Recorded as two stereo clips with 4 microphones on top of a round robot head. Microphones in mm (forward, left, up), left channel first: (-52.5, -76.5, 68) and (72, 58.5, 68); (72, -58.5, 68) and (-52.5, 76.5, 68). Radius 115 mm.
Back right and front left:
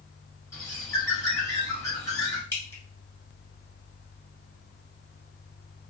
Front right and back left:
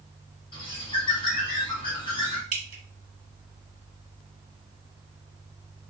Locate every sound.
0.5 s a bird: 75° right, 1.3 m
2.5 s dripping: 155° left, 1.1 m